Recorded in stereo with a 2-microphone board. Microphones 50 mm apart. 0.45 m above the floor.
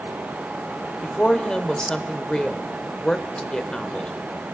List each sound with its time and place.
1.0 s a woman speaking: 15° left (ahead or behind), 1.3 m